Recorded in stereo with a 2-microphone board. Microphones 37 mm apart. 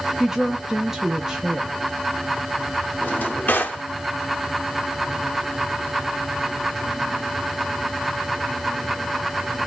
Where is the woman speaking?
10° right (ahead or behind), 0.6 m.